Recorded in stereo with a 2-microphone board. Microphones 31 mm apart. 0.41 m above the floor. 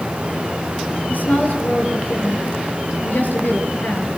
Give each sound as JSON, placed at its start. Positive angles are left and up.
{"t": 1.1, "sound": "a woman speaking", "side_deg": 75, "distance_m": 6.0}